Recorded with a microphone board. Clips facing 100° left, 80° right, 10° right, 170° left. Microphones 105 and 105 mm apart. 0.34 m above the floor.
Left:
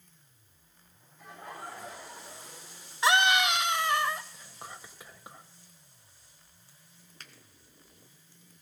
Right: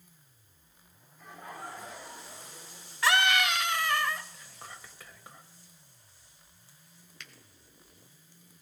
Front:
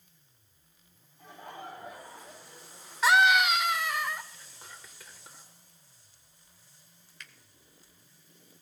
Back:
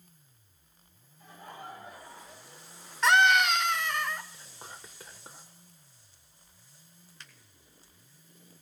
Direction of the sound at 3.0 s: 65° left.